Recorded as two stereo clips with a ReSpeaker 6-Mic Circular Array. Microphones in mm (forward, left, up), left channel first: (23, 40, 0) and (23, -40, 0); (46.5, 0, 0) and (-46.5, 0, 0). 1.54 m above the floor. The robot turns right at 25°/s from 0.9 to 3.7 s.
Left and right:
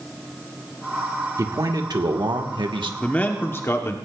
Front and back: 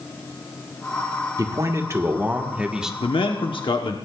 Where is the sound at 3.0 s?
15° left, 1.0 m; by 4.0 s 30° left, 1.0 m.